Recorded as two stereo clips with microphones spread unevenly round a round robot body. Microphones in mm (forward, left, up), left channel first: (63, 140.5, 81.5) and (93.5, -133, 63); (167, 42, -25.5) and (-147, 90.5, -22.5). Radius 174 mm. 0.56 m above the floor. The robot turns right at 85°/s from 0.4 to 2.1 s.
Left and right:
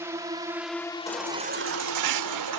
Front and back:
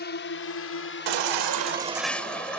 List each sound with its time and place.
0.0 s a drone: 20° right; by 2.6 s 120° left
1.1 s a baby crying: 175° left; by 2.6 s 95° right